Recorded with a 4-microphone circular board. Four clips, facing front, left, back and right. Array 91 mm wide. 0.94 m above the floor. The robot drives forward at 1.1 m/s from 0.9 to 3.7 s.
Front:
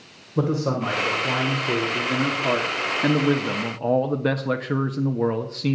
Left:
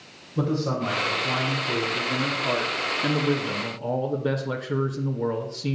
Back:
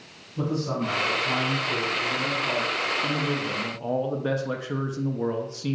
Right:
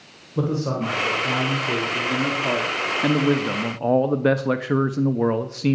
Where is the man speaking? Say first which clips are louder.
Right 2 dB, front 4 dB; 15° right, 3.5 m; by 5.8 s 65° right, 1.2 m.